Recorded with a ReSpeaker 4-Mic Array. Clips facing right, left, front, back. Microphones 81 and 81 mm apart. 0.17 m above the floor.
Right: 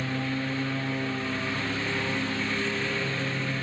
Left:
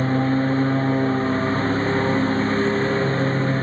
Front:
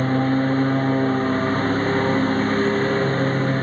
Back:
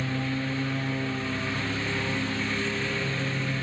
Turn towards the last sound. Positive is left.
turn(degrees=40)